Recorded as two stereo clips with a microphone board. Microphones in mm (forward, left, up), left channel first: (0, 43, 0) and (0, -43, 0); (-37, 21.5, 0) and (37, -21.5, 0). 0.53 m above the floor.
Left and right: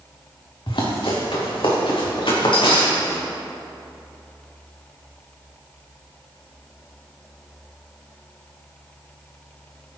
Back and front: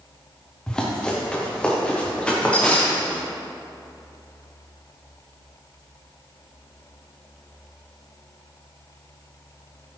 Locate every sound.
0.7 s running footsteps: 70° left, 3.5 m; by 3.2 s 75° left, 4.5 m